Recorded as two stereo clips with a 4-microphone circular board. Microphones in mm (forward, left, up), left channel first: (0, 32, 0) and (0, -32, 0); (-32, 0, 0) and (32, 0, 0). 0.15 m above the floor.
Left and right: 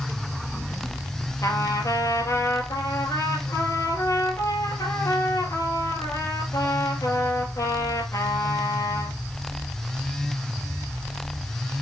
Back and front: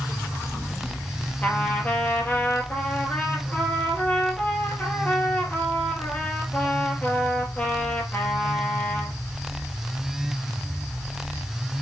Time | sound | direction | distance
1.4 | a trumpet | 120° left | 3 m